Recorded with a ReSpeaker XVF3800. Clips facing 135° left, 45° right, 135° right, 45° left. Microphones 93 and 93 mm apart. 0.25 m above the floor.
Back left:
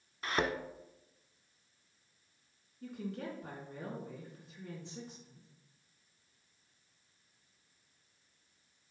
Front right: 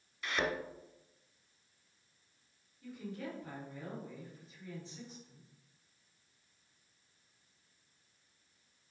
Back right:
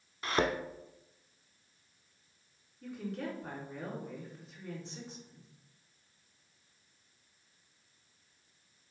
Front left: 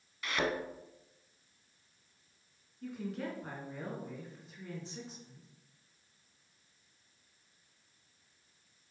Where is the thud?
175° left, 1.0 m.